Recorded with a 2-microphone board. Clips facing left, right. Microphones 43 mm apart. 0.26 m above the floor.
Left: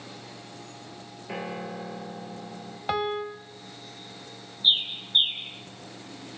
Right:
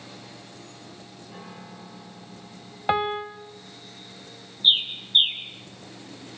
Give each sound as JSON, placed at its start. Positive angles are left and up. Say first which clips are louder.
{"t": 1.3, "sound": "a piano", "louder": "left 10 dB", "side_deg": 75, "distance_m": 3.5}
{"t": 2.9, "sound": "a piano", "louder": "right 3 dB", "side_deg": -25, "distance_m": 1.2}
{"t": 4.6, "sound": "a bird", "louder": "right 3 dB", "side_deg": -30, "distance_m": 3.0}